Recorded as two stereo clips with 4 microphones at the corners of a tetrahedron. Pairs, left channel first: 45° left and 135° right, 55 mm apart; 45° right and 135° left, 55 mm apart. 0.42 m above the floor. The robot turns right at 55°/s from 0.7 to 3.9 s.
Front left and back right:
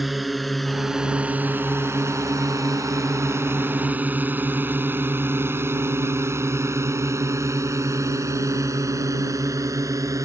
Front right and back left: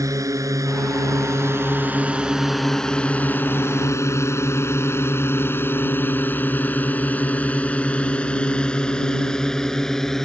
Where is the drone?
135° left; by 10.3 s 130° right.